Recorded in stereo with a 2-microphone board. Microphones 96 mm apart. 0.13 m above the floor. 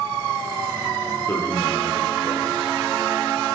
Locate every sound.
1.3 s a man speaking: 20° left (ahead or behind), 9.5 m